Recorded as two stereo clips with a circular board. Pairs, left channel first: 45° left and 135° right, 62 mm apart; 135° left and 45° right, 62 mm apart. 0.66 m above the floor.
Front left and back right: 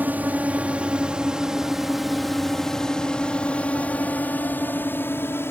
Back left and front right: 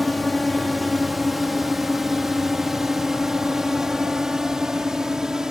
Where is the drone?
135° right; by 5.5 s 30° left.